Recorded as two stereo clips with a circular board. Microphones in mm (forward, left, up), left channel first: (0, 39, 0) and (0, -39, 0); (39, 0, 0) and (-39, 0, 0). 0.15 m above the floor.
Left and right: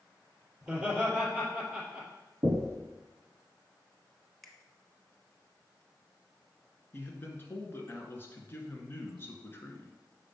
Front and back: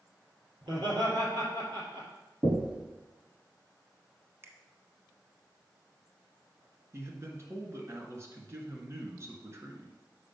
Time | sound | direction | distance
0.6 | laughter | 165° right | 3.5 m
2.4 | knocking | 115° right | 1.3 m
4.4 | a finger snap | 175° left | 1.0 m
6.9 | a man speaking | 145° left | 1.7 m